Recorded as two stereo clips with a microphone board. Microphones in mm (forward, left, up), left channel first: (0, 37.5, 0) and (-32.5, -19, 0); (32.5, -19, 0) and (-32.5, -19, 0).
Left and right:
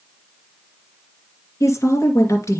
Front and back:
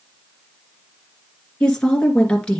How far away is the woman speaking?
About 2 m.